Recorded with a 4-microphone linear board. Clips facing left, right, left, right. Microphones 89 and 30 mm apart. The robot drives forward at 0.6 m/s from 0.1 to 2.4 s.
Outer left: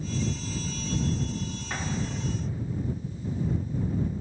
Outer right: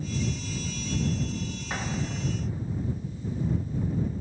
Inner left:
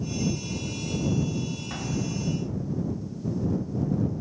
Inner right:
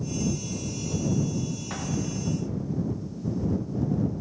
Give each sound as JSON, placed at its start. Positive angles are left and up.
{"t": 1.7, "sound": "an explosion", "side_deg": -15, "distance_m": 0.8}